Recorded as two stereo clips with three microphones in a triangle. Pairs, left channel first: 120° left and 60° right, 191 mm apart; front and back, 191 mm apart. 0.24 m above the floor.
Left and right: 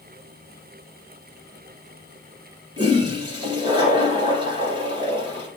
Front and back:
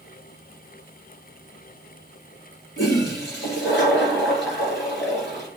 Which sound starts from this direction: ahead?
A toilet flushing, at 2.8 s.